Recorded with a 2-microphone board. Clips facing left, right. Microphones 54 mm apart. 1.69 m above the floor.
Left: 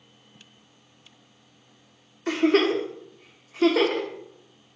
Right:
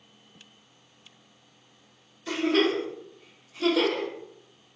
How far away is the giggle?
About 0.7 m.